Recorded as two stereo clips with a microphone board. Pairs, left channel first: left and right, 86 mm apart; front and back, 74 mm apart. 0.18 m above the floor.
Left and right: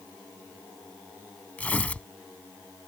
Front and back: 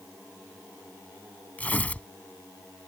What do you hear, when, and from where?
1.6 s tearing paper: 40° left